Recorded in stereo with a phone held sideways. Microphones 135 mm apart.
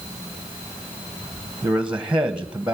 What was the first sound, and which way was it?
A man speaking, 5° right (ahead or behind).